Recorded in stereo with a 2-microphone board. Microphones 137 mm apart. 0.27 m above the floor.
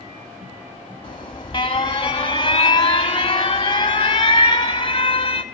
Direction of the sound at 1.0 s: 40° left (ahead or behind).